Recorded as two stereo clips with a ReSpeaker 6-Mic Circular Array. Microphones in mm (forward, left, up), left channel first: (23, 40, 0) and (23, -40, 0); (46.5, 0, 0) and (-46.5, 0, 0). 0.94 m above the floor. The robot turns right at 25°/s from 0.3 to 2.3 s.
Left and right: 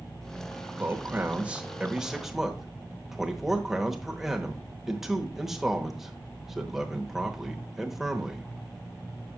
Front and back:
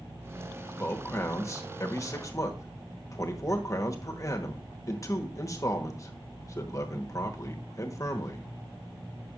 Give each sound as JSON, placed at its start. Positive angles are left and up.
{"t": 0.8, "sound": "a man speaking", "azimuth_deg": -45, "distance_m": 1.0}